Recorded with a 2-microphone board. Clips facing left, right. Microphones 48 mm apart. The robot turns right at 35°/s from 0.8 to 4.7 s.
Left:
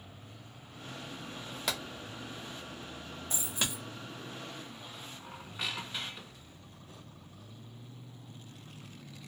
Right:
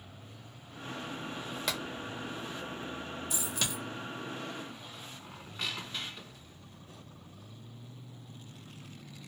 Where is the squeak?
10° left (ahead or behind), 0.5 m.